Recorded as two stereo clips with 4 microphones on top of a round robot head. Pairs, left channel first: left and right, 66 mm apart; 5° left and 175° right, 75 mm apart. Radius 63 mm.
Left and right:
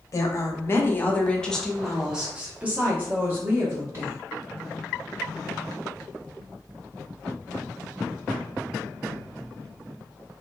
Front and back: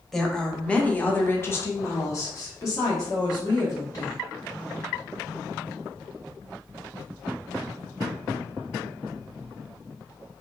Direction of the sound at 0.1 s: 90° left.